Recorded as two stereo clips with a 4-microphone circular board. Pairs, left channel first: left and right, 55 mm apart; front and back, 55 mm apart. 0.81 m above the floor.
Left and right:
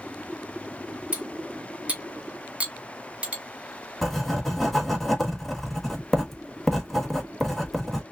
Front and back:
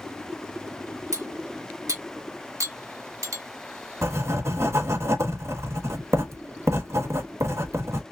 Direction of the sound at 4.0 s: 170° left.